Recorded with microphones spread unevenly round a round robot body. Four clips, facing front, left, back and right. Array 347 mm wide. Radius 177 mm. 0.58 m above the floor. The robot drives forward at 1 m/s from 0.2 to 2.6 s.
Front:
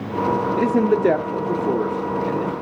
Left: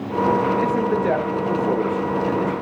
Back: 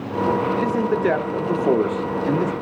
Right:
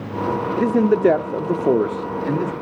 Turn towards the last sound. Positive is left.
turn(degrees=-140)